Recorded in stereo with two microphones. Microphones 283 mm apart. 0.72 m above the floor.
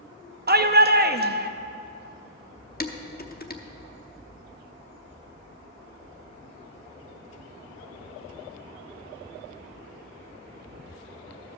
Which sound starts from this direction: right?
A shout, at 0.5 s.